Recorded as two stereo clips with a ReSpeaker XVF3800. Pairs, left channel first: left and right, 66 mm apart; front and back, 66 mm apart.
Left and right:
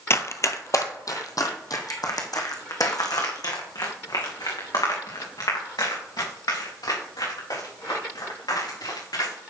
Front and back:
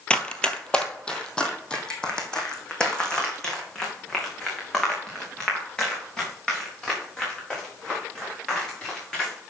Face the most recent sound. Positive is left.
turn(degrees=80)